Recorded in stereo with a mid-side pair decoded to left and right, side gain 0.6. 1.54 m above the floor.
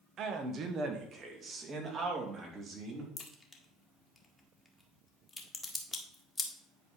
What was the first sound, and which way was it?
A man speaking, 55° right.